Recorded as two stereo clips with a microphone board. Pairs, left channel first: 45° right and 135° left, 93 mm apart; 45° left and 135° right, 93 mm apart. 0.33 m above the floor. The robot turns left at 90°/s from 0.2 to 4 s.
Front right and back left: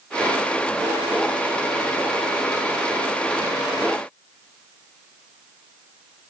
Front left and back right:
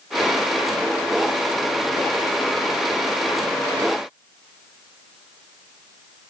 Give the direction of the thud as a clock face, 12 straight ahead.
No thud in this recording.